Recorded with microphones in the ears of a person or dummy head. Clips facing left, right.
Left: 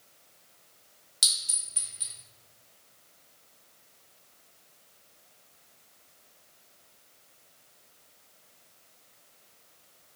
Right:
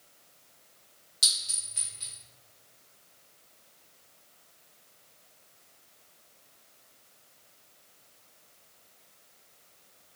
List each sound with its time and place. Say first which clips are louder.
1.2 s a clink: even; 15° left (ahead or behind), 0.8 m